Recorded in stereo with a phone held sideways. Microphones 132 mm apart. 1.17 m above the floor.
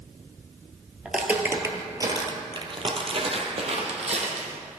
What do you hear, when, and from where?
1.1 s footsteps: 5° right (ahead or behind), 1.2 m; by 4.6 s 55° right (ahead or behind), 2 m